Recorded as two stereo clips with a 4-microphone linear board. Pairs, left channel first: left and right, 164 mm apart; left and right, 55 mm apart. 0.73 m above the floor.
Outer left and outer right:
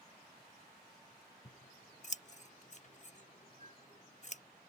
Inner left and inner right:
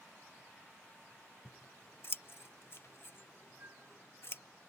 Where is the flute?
45° right (ahead or behind).